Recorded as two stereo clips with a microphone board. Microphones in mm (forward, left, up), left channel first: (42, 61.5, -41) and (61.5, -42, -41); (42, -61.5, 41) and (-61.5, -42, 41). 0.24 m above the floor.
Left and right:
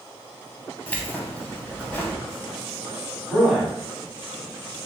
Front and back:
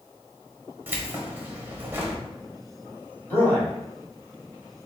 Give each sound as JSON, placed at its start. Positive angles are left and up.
{"t": 0.9, "sound": "keys jangling", "azimuth_deg": 140, "distance_m": 0.7}
{"t": 3.3, "sound": "a man speaking", "azimuth_deg": 0, "distance_m": 1.4}